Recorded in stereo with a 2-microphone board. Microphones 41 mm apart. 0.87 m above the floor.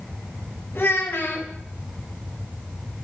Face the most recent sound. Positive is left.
turn(degrees=60)  # may be behind; listen again after turning